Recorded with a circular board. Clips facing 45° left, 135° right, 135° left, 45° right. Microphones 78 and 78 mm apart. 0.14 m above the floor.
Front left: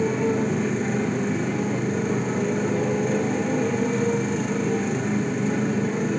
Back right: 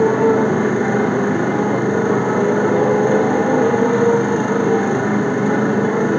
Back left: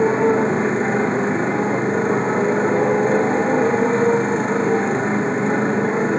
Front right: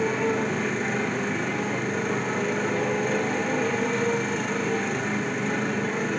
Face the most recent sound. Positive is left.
turn(degrees=-165)